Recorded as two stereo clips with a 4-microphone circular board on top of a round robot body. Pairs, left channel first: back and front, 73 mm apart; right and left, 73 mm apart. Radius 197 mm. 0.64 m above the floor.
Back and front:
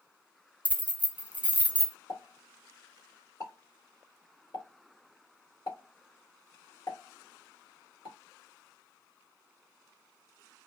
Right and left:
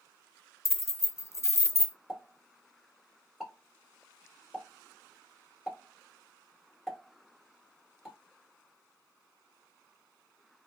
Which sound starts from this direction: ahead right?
Keys jangling, at 0.7 s.